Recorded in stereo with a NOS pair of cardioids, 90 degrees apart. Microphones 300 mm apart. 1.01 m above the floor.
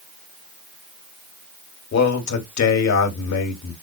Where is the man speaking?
65° left, 2 m.